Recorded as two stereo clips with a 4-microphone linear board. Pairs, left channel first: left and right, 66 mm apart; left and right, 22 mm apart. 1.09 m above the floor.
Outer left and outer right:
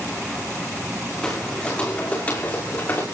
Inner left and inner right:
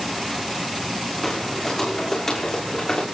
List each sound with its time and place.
1.2 s footsteps: 10° left (ahead or behind), 5 m; by 3.0 s 30° left (ahead or behind), 5.5 m